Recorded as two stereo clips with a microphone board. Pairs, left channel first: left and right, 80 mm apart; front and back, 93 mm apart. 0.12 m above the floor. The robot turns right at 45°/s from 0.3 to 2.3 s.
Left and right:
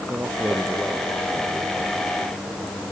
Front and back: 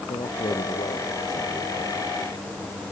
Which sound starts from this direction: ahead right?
A man speaking, at 0.1 s.